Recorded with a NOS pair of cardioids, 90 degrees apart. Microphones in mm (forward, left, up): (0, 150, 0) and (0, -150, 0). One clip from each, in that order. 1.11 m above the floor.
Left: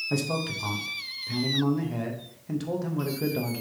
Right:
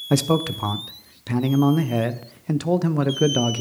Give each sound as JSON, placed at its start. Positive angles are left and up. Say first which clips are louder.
{"t": 0.1, "sound": "a man speaking", "louder": "right 8 dB", "azimuth_deg": -50, "distance_m": 0.6}